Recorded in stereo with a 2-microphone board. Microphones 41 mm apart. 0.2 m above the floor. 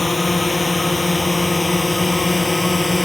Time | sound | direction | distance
0.0 | a drone | 5° left (ahead or behind) | ?